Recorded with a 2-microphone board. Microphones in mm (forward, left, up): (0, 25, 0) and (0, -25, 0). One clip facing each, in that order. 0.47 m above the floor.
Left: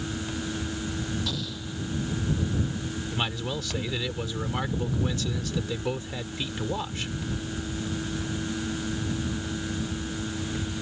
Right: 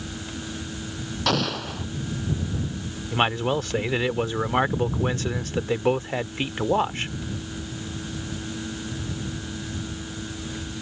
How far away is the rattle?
I don't hear a rattle.